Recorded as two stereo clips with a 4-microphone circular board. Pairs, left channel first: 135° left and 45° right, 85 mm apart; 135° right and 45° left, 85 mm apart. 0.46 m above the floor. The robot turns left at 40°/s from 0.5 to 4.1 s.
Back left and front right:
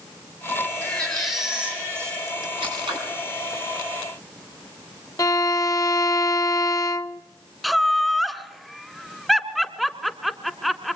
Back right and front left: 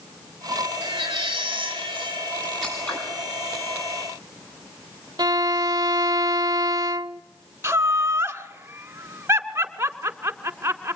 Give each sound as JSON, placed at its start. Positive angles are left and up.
{"t": 0.8, "sound": "a baby crying", "azimuth_deg": 65, "distance_m": 5.0}
{"t": 2.6, "sound": "scissors", "azimuth_deg": -50, "distance_m": 7.5}
{"t": 5.2, "sound": "a violin", "azimuth_deg": 85, "distance_m": 0.5}
{"t": 7.6, "sound": "laughter", "azimuth_deg": 50, "distance_m": 1.2}